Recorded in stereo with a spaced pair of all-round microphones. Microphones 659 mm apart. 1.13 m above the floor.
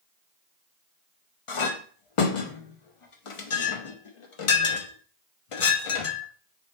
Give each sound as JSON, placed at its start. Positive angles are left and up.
{"t": 1.5, "sound": "a clink", "side_deg": 55, "distance_m": 0.6}